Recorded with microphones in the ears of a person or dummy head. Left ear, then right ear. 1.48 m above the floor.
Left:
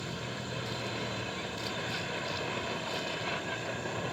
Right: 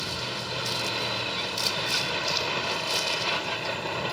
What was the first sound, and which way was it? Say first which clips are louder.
A vehicle: right 8 dB; 45° right (ahead or behind).